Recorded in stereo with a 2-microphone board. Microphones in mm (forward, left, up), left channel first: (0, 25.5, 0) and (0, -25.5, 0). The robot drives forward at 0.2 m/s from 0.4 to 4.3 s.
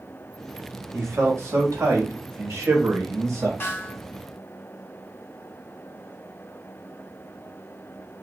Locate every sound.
0.9 s a man speaking: 65° right (ahead or behind), 1.3 m; by 3.5 s 70° right (ahead or behind), 1.3 m
3.6 s a snare drum: 40° left (ahead or behind), 1.0 m; by 4.0 s 35° left (ahead or behind), 1.1 m